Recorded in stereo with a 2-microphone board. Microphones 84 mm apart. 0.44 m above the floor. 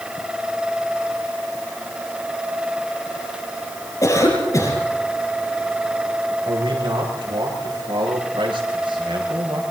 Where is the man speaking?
80° right, 8 m.